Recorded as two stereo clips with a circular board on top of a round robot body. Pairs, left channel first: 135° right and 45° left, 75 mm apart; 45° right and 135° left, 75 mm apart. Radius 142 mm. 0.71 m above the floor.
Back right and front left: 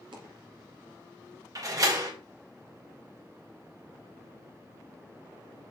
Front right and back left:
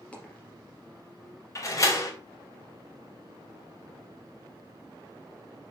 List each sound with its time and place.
0.1 s a dropped coin: 30° left, 3 m
1.6 s a door slam: 5° left, 3 m